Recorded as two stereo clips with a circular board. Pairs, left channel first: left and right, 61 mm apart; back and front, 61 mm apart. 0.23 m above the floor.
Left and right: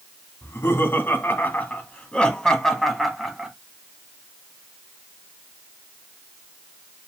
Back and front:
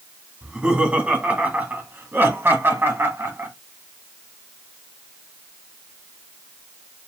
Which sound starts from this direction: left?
Laughter, at 0.4 s.